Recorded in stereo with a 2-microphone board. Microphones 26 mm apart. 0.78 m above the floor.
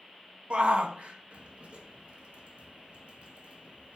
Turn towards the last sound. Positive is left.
turn(degrees=-50)  # may be behind; listen again after turning